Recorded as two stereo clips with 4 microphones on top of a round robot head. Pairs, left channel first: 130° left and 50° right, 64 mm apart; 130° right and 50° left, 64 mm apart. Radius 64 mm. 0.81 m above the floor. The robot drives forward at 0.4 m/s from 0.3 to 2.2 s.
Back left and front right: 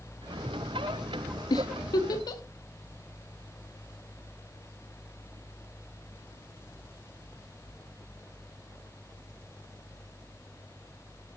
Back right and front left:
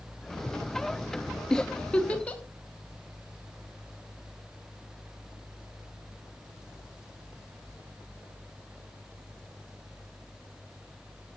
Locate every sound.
1.5 s a giggle: 150° left, 0.7 m; by 2.4 s 155° left, 0.9 m